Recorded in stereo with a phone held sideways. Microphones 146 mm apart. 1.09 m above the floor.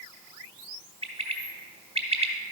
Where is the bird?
40° right (ahead or behind), 1.1 m.